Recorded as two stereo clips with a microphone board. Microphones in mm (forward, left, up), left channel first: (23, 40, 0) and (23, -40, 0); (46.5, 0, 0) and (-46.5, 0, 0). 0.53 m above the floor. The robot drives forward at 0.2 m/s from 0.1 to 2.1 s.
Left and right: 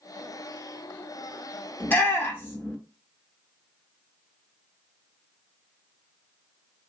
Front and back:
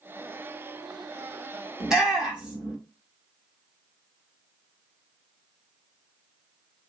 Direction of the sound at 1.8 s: 105° left.